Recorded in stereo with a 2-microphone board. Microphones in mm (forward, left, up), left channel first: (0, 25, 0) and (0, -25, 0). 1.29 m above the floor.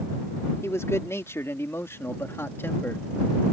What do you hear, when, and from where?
0.6 s a man speaking: 70° left (ahead or behind); by 3.0 s 50° left (ahead or behind)